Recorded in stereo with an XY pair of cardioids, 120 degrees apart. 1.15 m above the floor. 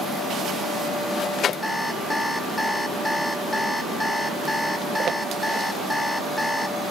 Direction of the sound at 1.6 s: 10° left.